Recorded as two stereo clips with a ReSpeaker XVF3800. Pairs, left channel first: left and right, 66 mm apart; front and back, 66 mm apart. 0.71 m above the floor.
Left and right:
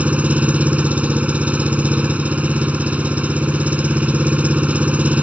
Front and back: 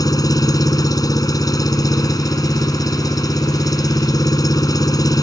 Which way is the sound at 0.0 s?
20° right.